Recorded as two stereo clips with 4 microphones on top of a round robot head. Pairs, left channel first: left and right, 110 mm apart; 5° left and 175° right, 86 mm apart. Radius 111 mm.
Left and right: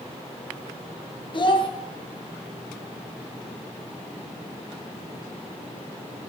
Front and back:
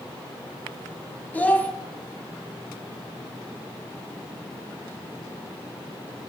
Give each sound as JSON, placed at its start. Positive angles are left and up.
{"t": 1.3, "sound": "a child speaking", "azimuth_deg": 75, "distance_m": 0.7}